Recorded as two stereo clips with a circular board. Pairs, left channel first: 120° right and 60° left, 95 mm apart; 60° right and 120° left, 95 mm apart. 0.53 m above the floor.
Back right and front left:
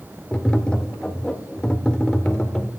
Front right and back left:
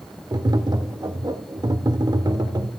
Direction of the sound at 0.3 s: 160° left.